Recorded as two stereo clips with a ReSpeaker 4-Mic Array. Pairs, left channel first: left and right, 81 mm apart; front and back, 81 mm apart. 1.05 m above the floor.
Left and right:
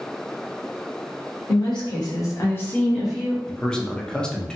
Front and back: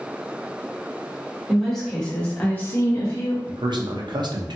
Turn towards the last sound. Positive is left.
turn(degrees=170)